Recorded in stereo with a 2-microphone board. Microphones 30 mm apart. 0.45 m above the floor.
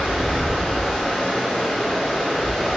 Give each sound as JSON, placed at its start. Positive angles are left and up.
{"t": 0.0, "sound": "running water", "side_deg": 10, "distance_m": 1.1}